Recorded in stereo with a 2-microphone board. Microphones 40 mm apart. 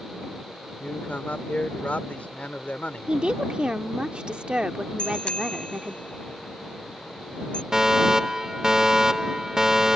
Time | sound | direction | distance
0.8 | a man speaking | 35° left (ahead or behind) | ?
3.1 | a woman speaking | 25° right (ahead or behind) | ?
5.0 | a bicycle bell | 25° left (ahead or behind) | ?
7.7 | a fire alarm | 10° right (ahead or behind) | ?